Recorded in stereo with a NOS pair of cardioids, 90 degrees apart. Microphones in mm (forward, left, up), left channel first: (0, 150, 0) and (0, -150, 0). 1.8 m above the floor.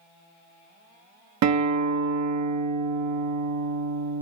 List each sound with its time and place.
1.4 s a guitar: 65° right, 1.3 m